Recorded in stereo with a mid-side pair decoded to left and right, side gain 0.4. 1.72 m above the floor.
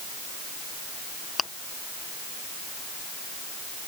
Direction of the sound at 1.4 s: 40° left.